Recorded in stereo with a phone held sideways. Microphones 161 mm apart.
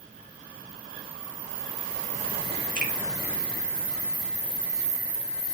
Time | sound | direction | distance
2.8 | a finger snap | 65° right (ahead or behind) | 0.8 m